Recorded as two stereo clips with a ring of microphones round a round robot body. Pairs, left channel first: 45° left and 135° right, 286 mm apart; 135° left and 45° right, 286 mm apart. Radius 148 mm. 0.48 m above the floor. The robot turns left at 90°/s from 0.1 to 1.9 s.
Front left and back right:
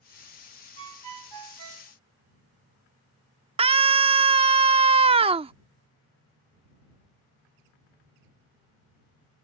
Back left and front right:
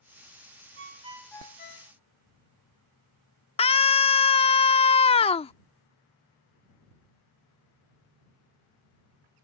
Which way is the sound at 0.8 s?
90° right.